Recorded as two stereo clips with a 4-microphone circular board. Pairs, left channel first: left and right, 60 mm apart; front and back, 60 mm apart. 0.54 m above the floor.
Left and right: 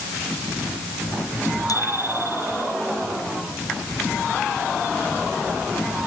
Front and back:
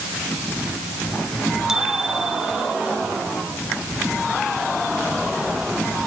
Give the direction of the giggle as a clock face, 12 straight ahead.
No giggle in this recording.